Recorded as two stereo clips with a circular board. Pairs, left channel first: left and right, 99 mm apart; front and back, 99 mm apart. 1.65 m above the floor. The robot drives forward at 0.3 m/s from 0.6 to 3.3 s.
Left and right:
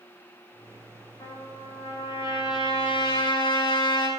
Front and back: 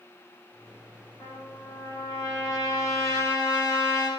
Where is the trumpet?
50° left, 7 m; by 4.1 s 55° left, 6.5 m.